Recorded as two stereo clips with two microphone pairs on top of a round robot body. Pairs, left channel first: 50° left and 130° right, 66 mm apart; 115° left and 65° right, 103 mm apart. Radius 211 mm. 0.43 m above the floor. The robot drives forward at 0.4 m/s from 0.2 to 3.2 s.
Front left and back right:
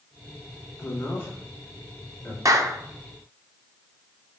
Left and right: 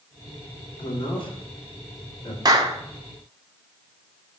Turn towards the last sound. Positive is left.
turn(degrees=-130)